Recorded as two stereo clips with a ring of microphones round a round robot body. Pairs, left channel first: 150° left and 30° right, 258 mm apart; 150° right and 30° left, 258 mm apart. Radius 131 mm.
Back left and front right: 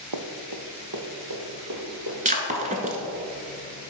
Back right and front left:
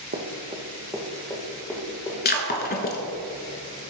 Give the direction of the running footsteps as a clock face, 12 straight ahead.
1 o'clock.